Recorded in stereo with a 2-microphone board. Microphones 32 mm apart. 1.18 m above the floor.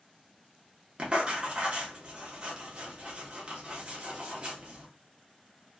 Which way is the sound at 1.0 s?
35° right (ahead or behind).